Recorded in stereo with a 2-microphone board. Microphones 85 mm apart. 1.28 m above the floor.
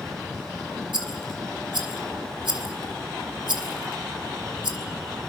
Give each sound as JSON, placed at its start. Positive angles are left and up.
{"t": 0.9, "sound": "a rattle", "side_deg": -65, "distance_m": 3.0}